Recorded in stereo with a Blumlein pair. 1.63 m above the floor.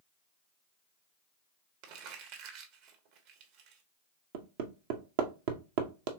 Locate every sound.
1.8 s crumpling: 45° right, 1.2 m
4.3 s hammering: 50° right, 0.8 m